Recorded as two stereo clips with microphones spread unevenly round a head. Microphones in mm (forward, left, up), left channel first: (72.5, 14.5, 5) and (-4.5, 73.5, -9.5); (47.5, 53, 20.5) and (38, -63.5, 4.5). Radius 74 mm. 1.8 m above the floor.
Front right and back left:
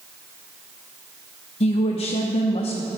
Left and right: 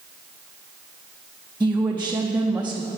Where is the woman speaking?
15° right, 0.8 m.